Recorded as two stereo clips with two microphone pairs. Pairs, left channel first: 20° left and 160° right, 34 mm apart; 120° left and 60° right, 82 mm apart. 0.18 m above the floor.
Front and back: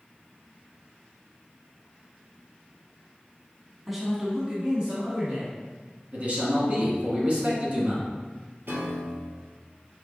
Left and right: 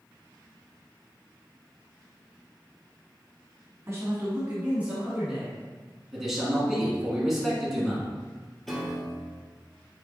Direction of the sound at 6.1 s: 145° right.